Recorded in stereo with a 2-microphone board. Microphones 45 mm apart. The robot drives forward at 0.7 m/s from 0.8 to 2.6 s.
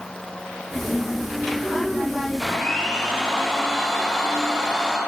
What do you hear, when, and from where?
2.4 s a blender: 10° left (ahead or behind), 3 m